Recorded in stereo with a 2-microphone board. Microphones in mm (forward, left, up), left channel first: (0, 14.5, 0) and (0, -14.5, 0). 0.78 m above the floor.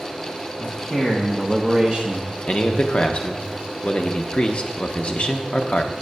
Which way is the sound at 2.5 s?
40° left (ahead or behind).